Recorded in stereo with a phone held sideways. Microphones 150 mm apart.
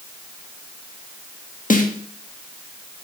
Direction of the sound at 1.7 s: 55° left (ahead or behind).